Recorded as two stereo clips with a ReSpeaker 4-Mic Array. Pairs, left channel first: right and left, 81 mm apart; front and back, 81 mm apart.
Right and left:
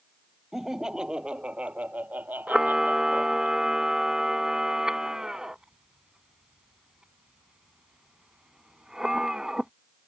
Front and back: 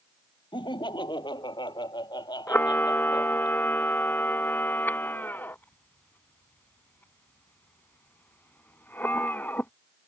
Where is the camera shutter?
20° left.